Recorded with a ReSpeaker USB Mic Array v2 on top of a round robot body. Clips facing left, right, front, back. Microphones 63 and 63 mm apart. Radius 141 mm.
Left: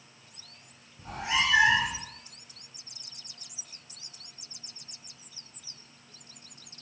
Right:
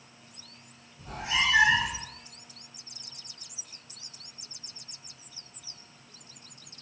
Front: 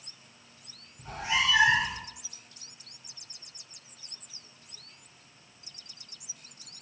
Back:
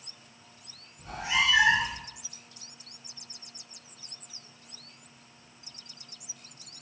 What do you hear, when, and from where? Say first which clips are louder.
1.0 s a cat meowing: even, back 1 dB; 70° left, 0.8 m